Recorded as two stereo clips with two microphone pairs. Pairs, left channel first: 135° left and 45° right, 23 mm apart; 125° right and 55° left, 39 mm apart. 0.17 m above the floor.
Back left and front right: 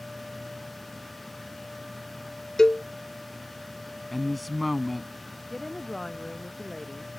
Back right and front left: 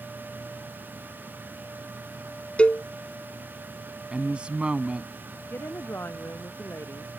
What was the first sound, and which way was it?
A cowbell, 165° right.